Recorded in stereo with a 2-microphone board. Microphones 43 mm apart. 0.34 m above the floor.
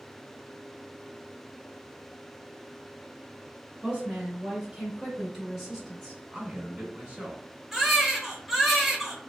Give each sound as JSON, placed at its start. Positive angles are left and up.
{"t": 3.8, "sound": "a woman speaking", "side_deg": -35, "distance_m": 1.4}
{"t": 6.3, "sound": "a man speaking", "side_deg": -35, "distance_m": 1.3}
{"t": 7.7, "sound": "a baby crying", "side_deg": -5, "distance_m": 0.7}